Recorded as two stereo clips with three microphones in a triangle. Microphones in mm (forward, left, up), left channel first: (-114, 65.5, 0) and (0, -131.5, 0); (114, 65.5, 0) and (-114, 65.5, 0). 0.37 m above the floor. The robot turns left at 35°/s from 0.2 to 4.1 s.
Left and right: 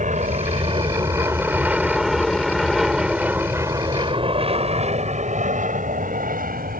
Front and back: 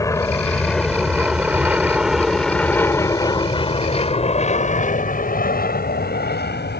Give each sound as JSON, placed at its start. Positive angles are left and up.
{"t": 0.0, "sound": "an aircraft", "azimuth_deg": -65}